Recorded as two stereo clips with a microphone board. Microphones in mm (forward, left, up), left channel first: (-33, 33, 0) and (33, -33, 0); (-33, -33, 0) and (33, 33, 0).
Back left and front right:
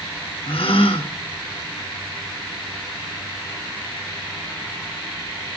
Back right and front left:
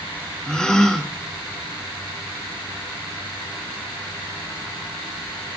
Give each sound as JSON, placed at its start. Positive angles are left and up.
{"t": 0.5, "sound": "a gasp", "azimuth_deg": 140, "distance_m": 2.5}